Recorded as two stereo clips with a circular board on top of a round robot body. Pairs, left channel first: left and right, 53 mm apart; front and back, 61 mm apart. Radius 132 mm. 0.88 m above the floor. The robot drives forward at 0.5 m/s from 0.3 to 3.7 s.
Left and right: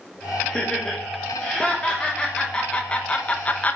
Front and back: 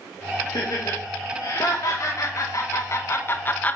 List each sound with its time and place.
0.5 s laughter: 10° left, 2 m; by 3.8 s 50° left, 0.7 m